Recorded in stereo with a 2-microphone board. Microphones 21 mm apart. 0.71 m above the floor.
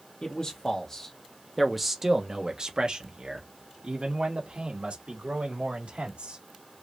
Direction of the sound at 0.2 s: 45° left (ahead or behind).